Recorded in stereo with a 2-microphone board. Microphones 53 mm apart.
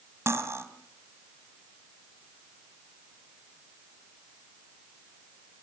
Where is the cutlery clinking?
50° right (ahead or behind), 2.5 m.